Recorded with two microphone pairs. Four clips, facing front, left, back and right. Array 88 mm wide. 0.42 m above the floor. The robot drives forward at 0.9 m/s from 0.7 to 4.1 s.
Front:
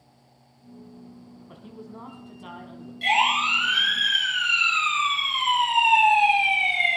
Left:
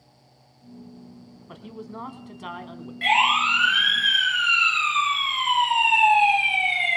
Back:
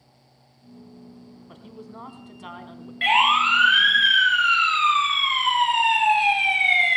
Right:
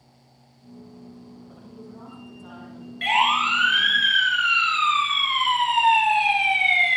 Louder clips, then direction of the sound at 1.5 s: Left 8 dB, even; 95° left.